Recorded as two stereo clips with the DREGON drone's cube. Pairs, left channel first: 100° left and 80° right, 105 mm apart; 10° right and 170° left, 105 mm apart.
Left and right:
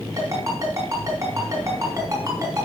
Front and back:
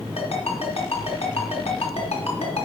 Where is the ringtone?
20° right, 3 m.